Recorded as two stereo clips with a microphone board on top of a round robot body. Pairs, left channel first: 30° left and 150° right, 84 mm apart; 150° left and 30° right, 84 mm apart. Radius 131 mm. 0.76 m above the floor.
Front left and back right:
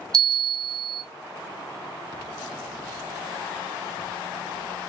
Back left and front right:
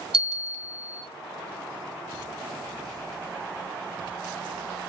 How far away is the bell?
About 0.7 m.